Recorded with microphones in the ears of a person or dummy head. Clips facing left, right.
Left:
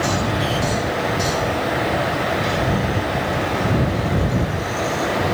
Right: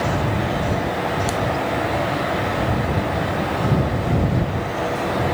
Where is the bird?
I don't hear a bird.